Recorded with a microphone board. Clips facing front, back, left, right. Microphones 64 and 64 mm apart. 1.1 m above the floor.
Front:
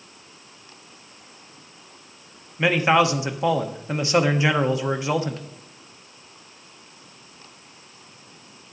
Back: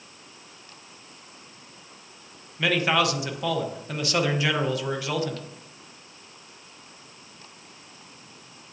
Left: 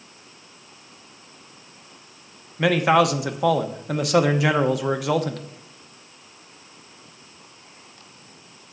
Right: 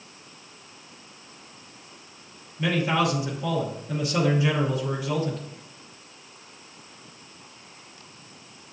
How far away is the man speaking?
About 0.8 m.